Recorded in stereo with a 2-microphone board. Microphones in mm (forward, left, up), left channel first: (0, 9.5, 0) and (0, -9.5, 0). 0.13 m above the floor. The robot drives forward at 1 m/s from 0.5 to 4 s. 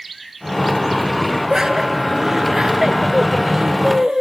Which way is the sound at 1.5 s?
30° right (ahead or behind).